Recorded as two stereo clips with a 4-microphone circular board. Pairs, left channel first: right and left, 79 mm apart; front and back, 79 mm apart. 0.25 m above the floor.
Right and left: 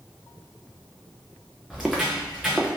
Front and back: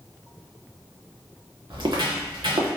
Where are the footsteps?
175° left, 1.0 m.